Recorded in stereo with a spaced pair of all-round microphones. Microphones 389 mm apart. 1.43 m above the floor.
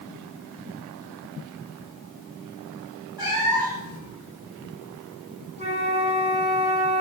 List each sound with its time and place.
3.2 s a cat meowing: 75° left (ahead or behind), 4.5 m
5.6 s a flute: 20° right (ahead or behind), 2 m